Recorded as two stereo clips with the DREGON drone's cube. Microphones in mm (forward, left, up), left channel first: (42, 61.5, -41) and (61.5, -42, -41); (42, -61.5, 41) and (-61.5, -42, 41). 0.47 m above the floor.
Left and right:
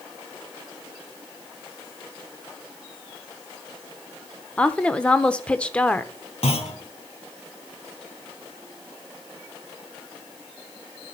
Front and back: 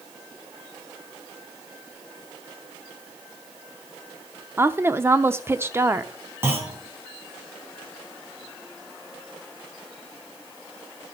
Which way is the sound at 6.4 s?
100° left.